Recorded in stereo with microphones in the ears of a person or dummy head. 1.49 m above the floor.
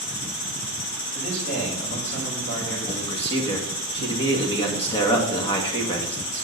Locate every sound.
0.0 s an insect: 75° left (ahead or behind), 5 m
1.1 s a man speaking: 40° left (ahead or behind), 5 m
2.9 s a man speaking: 30° left (ahead or behind), 2 m